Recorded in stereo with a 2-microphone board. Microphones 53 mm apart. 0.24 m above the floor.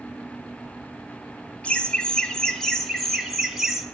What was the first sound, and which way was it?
Laughter, 25° left (ahead or behind).